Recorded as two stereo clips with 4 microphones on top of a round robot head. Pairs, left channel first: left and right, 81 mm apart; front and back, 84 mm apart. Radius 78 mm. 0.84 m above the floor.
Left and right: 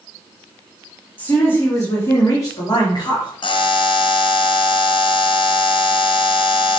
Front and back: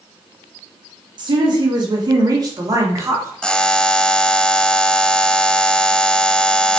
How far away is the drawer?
No drawer in this recording.